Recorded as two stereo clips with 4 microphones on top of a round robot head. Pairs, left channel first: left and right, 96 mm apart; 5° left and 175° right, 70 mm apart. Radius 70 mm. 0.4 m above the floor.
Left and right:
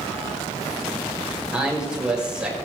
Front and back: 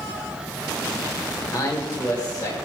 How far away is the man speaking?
About 2 m.